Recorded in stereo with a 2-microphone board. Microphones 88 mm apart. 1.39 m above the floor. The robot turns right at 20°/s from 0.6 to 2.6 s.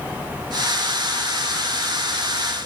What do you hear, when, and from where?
Only background noise.